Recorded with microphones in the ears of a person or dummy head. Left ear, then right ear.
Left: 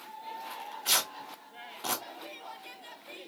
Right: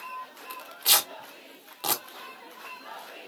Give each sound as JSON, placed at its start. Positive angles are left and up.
{"t": 0.5, "sound": "tearing paper", "side_deg": -45, "distance_m": 0.9}